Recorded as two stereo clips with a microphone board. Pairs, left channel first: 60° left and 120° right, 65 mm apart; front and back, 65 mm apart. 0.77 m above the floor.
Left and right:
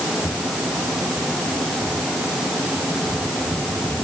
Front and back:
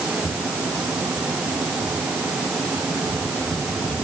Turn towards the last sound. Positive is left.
No sound to turn to.